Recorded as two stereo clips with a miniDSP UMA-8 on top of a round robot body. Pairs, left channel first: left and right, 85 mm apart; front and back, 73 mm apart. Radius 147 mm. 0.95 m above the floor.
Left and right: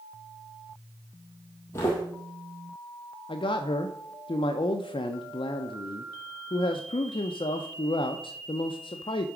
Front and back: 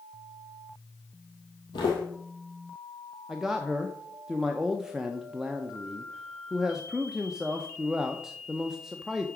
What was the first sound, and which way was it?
Footsteps, 30° left.